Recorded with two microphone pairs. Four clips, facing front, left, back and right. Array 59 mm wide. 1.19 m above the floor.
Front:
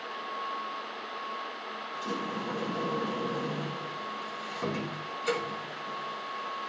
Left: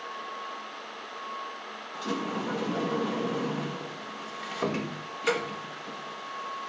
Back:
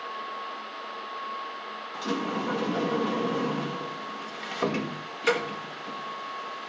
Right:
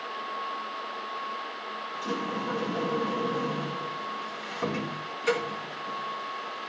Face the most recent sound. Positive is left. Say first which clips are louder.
# left 1 dB, back 5 dB
turn(degrees=160)